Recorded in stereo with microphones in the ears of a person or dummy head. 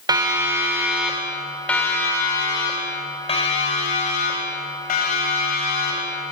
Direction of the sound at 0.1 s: 20° right (ahead or behind).